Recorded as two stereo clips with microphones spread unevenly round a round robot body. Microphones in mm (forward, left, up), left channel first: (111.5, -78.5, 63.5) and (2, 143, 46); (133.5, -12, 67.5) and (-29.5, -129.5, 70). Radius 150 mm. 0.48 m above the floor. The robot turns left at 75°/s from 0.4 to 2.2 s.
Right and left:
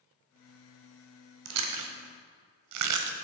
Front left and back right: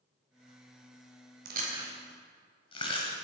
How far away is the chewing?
About 0.9 m.